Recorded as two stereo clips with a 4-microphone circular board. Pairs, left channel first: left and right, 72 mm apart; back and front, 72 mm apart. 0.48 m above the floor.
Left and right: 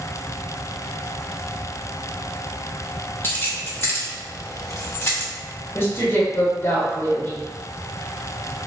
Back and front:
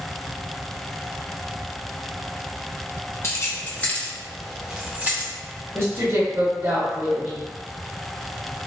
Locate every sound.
3.2 s keys jangling: 145° left, 1.1 m; by 5.3 s 50° left, 1.1 m
5.8 s a woman speaking: 40° left, 1.5 m